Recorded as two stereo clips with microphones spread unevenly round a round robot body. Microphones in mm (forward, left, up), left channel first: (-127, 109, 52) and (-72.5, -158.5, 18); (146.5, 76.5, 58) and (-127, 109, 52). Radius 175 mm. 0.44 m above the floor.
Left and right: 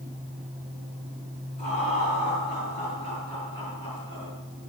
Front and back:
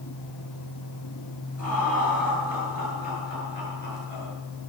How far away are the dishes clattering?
No dishes clattering in this recording.